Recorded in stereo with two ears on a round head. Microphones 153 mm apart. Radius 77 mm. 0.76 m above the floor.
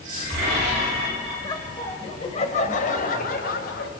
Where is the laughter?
20° left (ahead or behind), 3.5 m; by 3.9 s 60° left (ahead or behind), 4.5 m.